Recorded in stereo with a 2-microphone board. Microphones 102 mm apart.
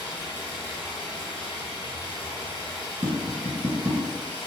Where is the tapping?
45° right (ahead or behind), 1.4 m.